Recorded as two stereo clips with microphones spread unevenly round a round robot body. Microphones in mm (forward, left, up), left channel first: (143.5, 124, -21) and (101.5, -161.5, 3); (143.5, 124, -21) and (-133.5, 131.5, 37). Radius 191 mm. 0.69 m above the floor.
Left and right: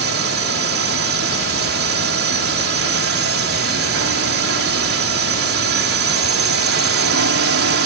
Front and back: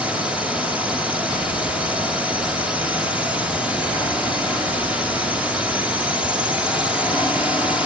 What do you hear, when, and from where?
0.0 s a drone: 85° right